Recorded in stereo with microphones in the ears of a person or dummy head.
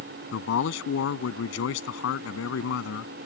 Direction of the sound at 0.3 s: 80° left.